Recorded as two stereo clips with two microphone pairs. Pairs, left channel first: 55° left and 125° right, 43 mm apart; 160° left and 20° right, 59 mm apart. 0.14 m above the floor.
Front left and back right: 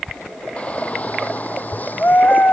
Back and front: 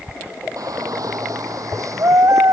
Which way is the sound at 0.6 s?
5° right.